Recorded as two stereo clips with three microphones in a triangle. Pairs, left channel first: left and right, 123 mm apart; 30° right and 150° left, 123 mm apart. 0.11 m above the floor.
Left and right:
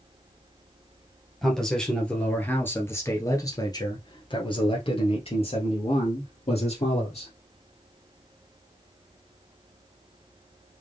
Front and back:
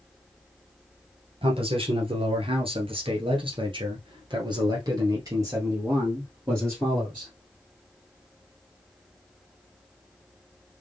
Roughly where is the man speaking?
Behind.